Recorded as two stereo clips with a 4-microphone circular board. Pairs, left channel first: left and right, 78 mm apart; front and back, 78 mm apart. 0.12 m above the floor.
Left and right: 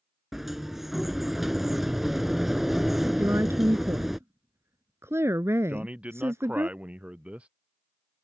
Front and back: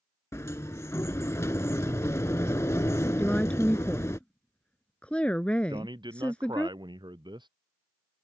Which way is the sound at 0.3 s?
5° right.